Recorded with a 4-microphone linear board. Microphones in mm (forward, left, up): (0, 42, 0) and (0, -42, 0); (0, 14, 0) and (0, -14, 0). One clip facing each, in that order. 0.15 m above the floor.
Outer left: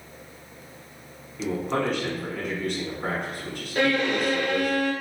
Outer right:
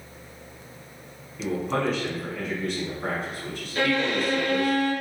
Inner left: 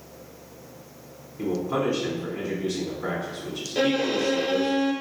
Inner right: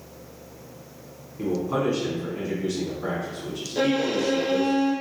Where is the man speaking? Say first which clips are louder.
Even, inner right 1 dB; centre (ahead or behind), 1.2 m.